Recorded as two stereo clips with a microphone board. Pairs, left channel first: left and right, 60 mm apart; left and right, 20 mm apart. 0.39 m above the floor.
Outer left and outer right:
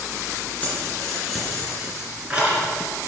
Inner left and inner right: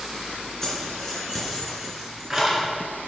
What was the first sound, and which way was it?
Keys jangling, 25° left (ahead or behind).